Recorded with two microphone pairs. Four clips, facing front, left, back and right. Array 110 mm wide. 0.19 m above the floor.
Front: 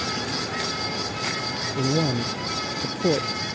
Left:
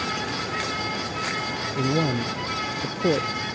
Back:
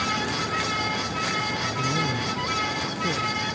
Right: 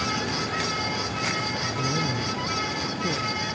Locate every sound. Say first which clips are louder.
1.7 s a man speaking: left 7 dB, front 6 dB; 45° left